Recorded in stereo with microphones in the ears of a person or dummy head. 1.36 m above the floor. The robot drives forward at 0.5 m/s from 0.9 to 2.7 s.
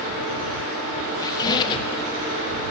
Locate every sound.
1.2 s a squeak: 15° left (ahead or behind), 0.8 m; by 2.0 s 30° left (ahead or behind), 0.5 m